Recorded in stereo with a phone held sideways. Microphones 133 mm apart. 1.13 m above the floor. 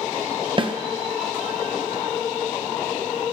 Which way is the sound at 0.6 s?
35° right (ahead or behind).